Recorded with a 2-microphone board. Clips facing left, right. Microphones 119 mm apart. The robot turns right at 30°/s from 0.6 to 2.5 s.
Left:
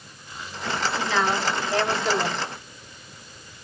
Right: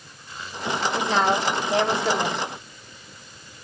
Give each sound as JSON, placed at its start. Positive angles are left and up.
{"t": 0.9, "sound": "a woman speaking", "azimuth_deg": -45, "distance_m": 1.6}